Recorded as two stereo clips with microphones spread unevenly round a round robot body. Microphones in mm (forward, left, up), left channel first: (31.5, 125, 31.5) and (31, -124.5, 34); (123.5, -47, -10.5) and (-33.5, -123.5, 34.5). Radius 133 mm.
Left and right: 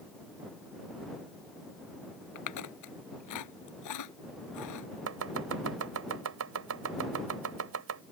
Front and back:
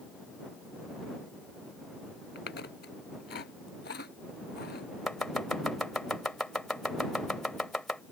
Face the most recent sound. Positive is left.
turn(degrees=-60)